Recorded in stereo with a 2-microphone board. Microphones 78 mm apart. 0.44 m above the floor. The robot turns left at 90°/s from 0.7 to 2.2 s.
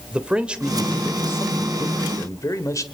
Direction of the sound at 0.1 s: 165° right.